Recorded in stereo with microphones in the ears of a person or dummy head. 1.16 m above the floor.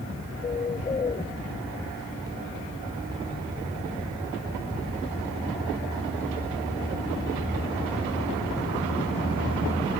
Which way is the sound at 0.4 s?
20° left (ahead or behind).